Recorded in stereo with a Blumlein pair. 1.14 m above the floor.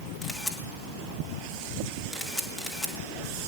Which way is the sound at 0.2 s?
Straight ahead.